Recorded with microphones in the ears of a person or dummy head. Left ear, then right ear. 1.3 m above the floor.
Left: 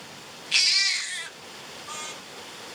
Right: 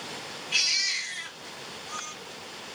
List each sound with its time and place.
0.5 s a baby crying: 60° left (ahead or behind), 1.2 m